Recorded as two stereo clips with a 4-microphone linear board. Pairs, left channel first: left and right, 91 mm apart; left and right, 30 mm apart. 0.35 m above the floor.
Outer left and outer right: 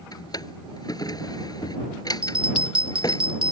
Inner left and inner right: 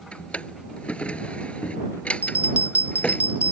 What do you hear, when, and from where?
0.1 s a drawer: 45° left (ahead or behind)
2.2 s a bell: 75° right (ahead or behind)